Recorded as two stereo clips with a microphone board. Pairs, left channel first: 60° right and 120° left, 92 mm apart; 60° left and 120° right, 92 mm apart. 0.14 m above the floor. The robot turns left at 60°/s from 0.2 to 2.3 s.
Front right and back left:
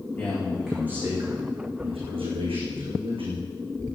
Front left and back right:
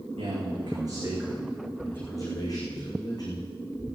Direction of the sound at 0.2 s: 125° right.